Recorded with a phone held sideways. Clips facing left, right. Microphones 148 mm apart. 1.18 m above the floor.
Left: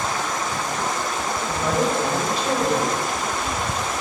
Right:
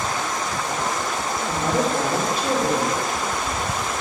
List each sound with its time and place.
1.5 s a woman speaking: 50° right (ahead or behind), 2.5 m